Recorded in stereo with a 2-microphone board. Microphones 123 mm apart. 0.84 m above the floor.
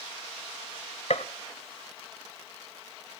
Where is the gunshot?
70° left (ahead or behind), 1.2 m.